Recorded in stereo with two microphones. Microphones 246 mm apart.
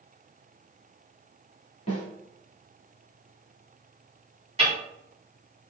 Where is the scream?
No scream in this recording.